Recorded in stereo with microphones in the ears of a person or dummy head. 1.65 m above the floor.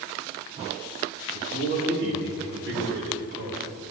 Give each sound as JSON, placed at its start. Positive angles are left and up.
{"t": 1.3, "sound": "a man speaking", "side_deg": -60, "distance_m": 4.0}